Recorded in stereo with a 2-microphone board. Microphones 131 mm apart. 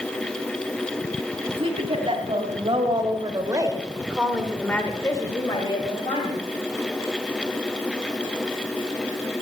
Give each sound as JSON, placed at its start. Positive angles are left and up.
{"t": 1.5, "sound": "a woman speaking", "side_deg": -45, "distance_m": 3.5}